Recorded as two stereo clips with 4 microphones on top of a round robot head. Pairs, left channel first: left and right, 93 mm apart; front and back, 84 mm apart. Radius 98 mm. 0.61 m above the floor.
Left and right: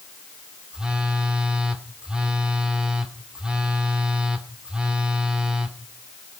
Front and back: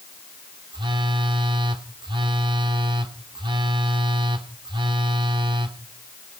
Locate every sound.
0.7 s a phone buzzing: 170° right, 2.5 m